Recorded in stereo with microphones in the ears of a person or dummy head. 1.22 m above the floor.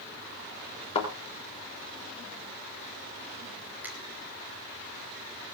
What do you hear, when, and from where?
0.9 s a thud: 30° left (ahead or behind), 4.5 m
3.8 s a finger snap: 10° right (ahead or behind), 2.5 m